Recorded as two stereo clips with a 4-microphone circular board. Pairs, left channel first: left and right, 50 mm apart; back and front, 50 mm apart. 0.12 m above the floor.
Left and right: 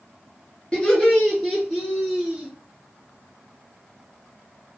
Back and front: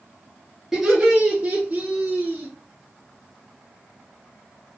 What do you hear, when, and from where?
0.7 s laughter: 70° left, 1.2 m; by 2.5 s 15° right, 1.9 m